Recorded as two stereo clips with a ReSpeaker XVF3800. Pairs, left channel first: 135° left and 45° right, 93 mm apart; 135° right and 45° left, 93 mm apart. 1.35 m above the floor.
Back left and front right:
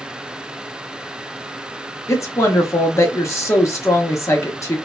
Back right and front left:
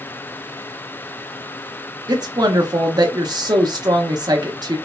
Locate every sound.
2.1 s a woman speaking: 80° left, 0.6 m